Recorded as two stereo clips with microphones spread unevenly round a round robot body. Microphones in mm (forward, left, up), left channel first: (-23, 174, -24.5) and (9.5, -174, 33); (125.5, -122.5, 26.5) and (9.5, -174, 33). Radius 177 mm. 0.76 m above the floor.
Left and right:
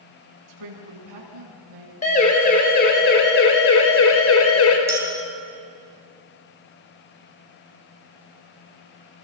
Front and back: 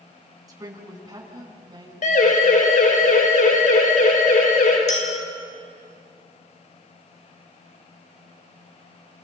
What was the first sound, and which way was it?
A woman speaking, 95° right.